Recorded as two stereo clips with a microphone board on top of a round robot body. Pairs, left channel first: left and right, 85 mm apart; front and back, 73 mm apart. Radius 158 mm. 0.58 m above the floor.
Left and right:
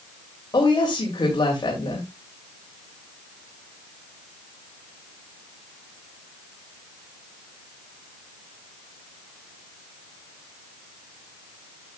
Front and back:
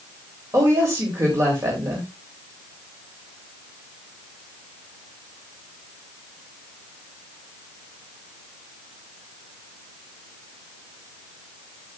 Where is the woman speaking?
130° left, 3 m.